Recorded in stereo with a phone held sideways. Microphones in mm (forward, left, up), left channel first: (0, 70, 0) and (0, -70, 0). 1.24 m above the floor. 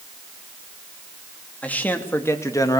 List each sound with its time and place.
1.6 s a man speaking: 10° left (ahead or behind), 2.5 m; by 2.8 s 30° left (ahead or behind), 1.9 m